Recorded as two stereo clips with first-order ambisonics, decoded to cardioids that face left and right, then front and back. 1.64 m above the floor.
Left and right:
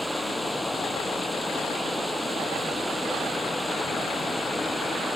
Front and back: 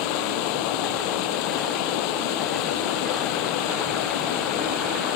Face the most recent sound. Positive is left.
turn(degrees=5)